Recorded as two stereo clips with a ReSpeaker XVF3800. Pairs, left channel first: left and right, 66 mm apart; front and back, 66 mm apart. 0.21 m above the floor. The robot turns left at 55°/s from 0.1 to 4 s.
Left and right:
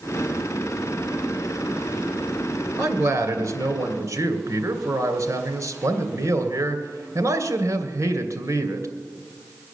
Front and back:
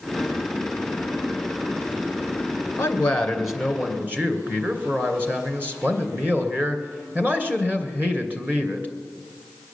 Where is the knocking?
No knocking in this recording.